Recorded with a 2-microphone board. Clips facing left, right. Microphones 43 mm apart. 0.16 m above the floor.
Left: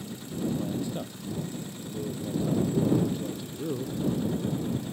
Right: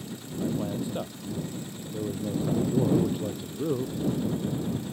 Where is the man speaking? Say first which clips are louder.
Even; 15° right (ahead or behind).